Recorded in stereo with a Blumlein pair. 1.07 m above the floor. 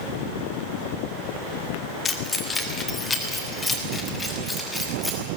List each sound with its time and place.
2.0 s keys jangling: 20° left, 2 m; by 5.2 s 5° left, 6 m